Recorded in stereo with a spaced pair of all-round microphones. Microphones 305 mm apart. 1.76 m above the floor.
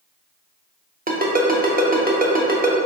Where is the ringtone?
30° right (ahead or behind), 0.8 m.